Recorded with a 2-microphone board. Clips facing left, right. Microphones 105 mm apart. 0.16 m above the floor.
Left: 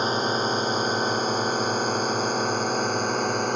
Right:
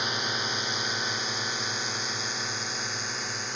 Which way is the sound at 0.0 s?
40° left (ahead or behind).